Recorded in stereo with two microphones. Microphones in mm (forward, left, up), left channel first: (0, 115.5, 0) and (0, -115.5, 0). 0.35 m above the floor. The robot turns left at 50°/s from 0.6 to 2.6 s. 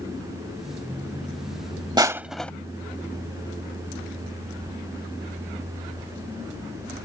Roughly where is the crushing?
Centre.